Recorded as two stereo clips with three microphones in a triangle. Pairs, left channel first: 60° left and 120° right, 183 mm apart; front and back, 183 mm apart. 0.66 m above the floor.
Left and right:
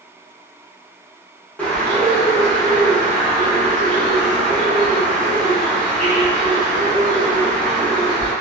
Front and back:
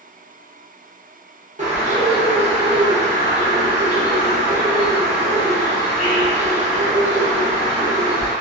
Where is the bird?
140° left, 0.9 m.